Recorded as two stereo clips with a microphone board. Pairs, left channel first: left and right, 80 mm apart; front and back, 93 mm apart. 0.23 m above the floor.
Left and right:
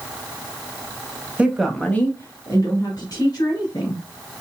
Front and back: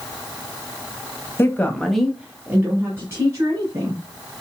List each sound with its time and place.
1.4 s a woman speaking: 30° right, 1.0 m; by 4.0 s 125° left, 3 m